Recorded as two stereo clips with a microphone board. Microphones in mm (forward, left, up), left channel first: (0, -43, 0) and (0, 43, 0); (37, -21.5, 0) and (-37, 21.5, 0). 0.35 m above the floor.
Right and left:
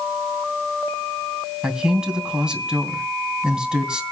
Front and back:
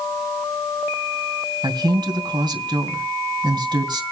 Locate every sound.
1.6 s a man speaking: 170° left, 3 m